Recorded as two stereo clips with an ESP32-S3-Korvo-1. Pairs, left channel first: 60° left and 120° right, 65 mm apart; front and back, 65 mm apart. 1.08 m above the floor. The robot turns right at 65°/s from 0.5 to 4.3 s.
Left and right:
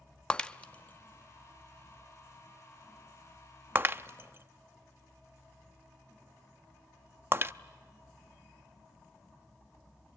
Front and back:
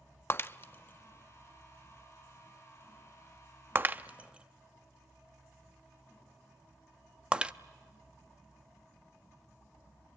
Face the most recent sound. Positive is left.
turn(degrees=-115)